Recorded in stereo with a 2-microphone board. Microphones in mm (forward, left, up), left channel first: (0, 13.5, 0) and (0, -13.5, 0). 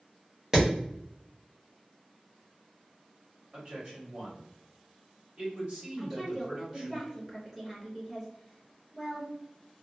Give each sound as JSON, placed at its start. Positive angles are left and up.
{"t": 0.5, "sound": "hammering", "side_deg": -25, "distance_m": 1.1}
{"t": 3.5, "sound": "a man speaking", "side_deg": -45, "distance_m": 1.6}
{"t": 6.0, "sound": "a woman speaking", "side_deg": -15, "distance_m": 0.9}